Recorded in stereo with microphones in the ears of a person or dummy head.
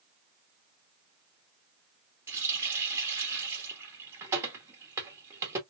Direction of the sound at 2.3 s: 15° right (ahead or behind).